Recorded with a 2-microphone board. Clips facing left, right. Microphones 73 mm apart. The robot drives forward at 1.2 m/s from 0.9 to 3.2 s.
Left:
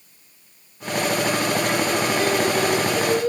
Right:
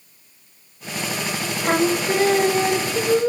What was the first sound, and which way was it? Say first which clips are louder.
Singing: right 2 dB; 45° right (ahead or behind).